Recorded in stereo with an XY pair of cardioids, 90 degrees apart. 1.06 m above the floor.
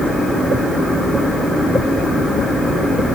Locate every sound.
Only background noise.